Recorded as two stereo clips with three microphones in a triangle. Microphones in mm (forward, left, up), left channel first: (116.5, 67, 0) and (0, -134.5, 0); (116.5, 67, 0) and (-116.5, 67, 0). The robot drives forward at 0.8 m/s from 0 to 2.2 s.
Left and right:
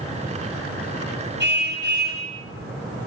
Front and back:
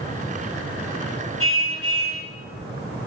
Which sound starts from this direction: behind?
A car horn, at 1.4 s.